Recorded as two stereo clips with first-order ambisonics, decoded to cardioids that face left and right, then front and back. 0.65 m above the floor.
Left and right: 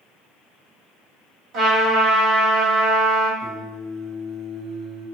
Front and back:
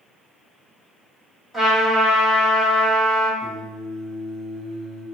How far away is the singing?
About 1.5 m.